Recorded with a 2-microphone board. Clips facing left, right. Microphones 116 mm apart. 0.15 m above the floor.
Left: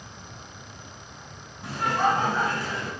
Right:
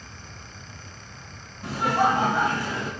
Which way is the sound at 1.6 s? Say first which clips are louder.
Right 2 dB; centre (ahead or behind).